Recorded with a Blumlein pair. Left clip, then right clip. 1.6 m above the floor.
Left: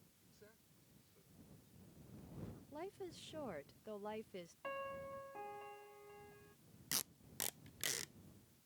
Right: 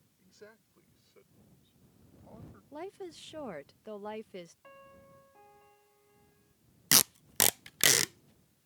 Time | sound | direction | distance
0.2 | a man speaking | 30° right | ?
2.7 | a woman speaking | 20° right | ?
4.6 | a piano | 25° left | ?
6.9 | tape being pulled | 50° right | ?